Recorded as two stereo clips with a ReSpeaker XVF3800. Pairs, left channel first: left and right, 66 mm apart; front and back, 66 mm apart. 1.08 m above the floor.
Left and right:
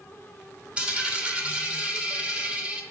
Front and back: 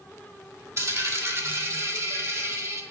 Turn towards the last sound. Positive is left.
turn(degrees=-150)